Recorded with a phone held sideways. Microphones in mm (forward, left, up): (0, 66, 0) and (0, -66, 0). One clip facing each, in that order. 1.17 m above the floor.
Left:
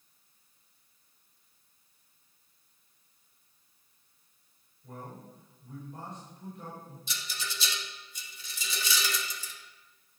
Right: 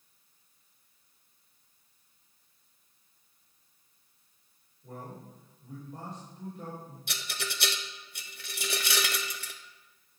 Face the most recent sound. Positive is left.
turn(degrees=-65)  # may be behind; listen again after turning